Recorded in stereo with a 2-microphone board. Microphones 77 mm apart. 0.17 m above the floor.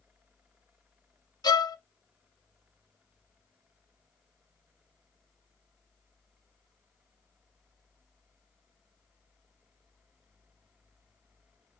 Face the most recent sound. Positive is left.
turn(degrees=60)  # may be behind; listen again after turning